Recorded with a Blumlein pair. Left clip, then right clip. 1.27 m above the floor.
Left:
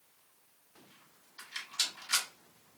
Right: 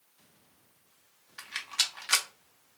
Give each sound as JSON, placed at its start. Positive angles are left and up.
{"t": 1.4, "sound": "a rattle", "azimuth_deg": -40, "distance_m": 0.8}